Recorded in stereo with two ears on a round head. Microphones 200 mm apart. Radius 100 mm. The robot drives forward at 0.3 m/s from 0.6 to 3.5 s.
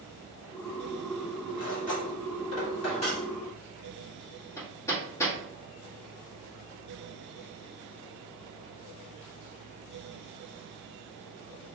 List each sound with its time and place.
1.6 s cutlery clinking: 35° left (ahead or behind), 2 m; by 3.2 s 30° left (ahead or behind), 2.5 m
4.6 s hammering: 15° left (ahead or behind), 1.8 m